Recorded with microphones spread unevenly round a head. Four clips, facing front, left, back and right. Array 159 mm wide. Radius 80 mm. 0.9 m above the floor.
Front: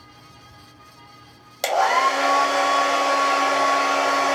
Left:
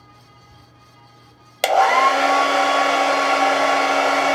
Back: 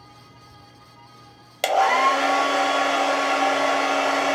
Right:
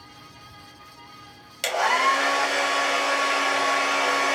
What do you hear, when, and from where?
1.6 s a hair dryer: 65° left, 0.6 m